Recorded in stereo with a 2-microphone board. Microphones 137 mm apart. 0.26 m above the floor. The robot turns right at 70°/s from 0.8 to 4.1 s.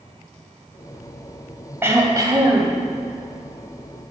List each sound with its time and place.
1.8 s throat clearing: 150° right, 1.5 m; by 2.8 s 80° right, 1.5 m